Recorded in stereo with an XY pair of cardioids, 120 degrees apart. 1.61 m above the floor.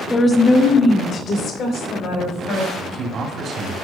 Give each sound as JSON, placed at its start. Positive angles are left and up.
{"t": 0.1, "sound": "a woman speaking", "azimuth_deg": 15, "distance_m": 0.9}
{"t": 2.8, "sound": "a man speaking", "azimuth_deg": -45, "distance_m": 1.9}